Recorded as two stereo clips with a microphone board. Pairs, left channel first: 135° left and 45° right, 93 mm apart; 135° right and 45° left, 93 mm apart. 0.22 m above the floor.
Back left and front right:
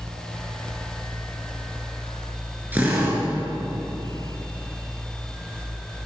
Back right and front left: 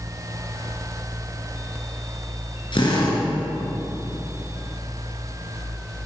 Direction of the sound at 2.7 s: 115° right.